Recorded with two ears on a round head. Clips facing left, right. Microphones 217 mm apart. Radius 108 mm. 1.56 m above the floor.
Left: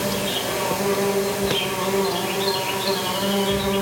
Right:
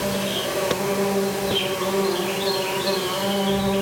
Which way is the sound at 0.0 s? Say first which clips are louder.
Even; centre (ahead or behind).